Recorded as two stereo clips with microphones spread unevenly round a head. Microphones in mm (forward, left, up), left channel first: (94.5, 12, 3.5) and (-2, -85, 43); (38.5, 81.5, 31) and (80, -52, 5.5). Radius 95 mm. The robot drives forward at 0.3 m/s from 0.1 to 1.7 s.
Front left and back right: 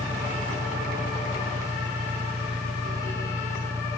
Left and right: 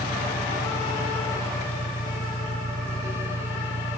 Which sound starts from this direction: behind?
An engine running, at 0.0 s.